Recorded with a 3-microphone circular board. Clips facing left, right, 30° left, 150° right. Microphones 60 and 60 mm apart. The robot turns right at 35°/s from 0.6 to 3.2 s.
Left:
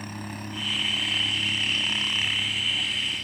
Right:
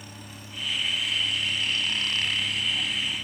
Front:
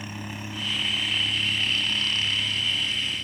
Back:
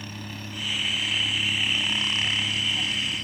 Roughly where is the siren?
I don't hear a siren.